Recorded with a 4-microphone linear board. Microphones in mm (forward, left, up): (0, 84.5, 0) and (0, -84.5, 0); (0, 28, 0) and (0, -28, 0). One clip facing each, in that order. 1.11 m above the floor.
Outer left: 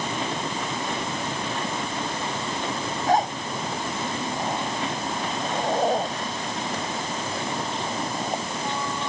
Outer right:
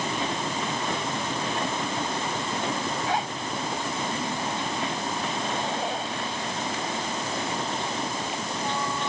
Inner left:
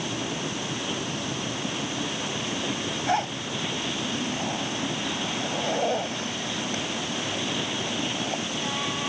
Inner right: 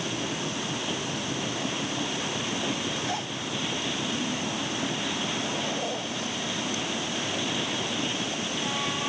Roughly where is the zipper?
Left.